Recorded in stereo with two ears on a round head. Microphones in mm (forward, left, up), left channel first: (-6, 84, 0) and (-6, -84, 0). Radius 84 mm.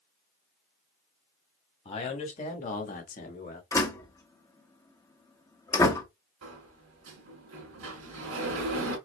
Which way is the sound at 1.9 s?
30° left (ahead or behind).